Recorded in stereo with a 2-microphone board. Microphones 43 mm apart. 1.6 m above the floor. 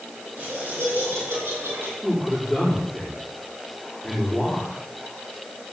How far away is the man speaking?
About 5 m.